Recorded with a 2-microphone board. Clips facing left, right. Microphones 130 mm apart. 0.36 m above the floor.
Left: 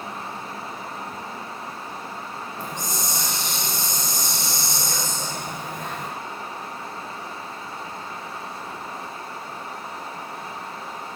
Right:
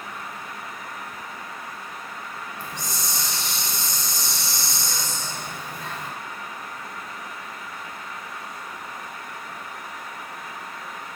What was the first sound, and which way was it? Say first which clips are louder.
A hiss: left 5 dB; 50° left (ahead or behind).